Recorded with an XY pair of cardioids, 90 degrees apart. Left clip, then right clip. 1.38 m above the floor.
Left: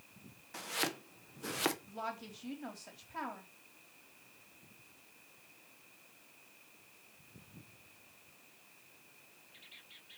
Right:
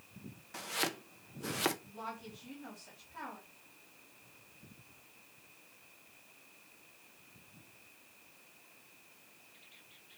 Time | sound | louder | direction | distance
0.5 | chopping | right 1 dB | straight ahead | 0.8 m
1.9 | a woman speaking | left 2 dB | 60° left | 3.5 m